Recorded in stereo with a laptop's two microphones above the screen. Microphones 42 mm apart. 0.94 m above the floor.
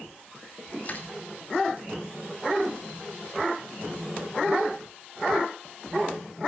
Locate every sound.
0.8 s crushing: 40° left (ahead or behind), 2 m